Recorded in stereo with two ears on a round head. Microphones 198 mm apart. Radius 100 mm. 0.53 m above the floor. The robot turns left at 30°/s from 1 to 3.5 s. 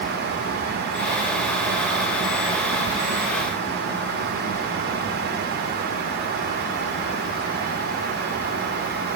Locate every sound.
Only background noise.